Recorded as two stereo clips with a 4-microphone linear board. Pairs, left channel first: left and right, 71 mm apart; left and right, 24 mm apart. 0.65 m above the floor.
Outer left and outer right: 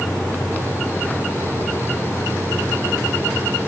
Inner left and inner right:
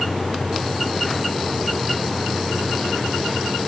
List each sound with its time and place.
Only background noise.